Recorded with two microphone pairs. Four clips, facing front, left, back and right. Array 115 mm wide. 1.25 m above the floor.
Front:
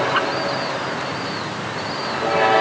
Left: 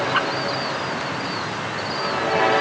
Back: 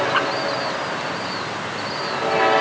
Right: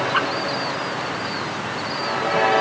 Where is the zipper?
No zipper in this recording.